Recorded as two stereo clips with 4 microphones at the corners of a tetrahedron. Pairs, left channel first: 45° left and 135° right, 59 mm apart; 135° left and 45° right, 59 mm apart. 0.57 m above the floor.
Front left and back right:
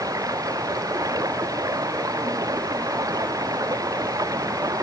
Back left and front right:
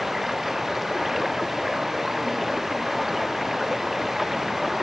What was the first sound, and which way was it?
Running water, 130° right.